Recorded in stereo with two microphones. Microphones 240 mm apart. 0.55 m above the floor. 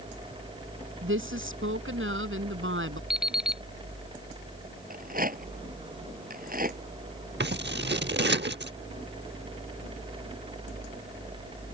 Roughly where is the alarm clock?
Centre.